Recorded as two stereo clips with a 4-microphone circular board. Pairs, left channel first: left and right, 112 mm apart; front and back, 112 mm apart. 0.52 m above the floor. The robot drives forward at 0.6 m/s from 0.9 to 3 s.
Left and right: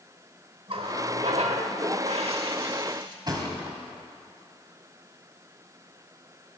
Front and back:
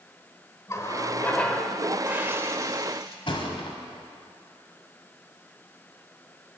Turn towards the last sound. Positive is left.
turn(degrees=-40)